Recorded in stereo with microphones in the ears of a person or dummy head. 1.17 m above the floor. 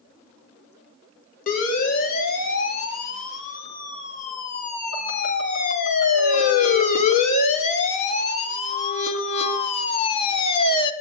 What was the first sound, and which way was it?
A siren, 50° left (ahead or behind).